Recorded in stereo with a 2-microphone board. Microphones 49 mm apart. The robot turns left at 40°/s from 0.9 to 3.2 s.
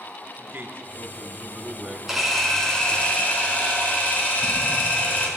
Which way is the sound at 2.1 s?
170° right.